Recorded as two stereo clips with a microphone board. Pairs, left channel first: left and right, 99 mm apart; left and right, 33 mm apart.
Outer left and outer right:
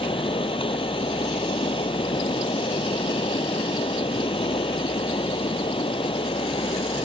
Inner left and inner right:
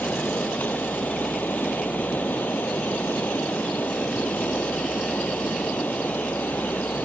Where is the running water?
65° left (ahead or behind).